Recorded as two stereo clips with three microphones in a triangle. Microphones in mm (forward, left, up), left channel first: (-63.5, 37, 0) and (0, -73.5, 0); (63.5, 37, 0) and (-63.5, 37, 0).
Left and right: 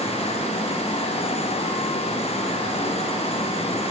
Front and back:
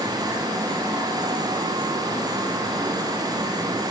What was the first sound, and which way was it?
Only background noise.